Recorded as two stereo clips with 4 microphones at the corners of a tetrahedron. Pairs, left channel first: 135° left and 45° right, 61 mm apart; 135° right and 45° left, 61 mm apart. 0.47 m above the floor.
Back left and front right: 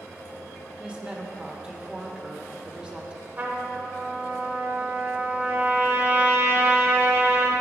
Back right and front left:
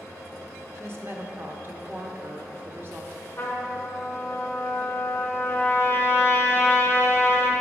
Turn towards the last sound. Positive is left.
turn(degrees=-85)